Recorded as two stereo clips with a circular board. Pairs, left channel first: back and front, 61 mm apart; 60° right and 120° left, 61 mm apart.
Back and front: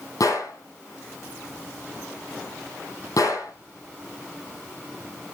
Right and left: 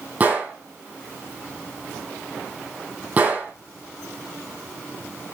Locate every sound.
0.2 s a gunshot: straight behind, 5 m